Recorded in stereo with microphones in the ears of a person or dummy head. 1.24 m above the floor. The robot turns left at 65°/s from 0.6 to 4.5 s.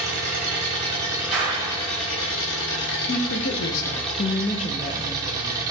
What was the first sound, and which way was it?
An engine running, 130° right.